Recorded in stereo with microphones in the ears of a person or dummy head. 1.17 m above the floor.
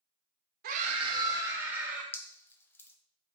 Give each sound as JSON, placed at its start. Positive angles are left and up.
{"t": 0.6, "sound": "a scream", "side_deg": -45, "distance_m": 1.0}
{"t": 2.1, "sound": "dripping", "side_deg": 10, "distance_m": 0.8}